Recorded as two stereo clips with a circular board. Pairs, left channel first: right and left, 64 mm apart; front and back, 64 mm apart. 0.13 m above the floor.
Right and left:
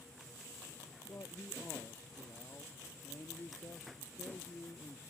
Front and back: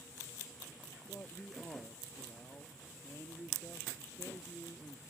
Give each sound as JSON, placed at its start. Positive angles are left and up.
{"t": 1.1, "sound": "a man speaking", "azimuth_deg": -50}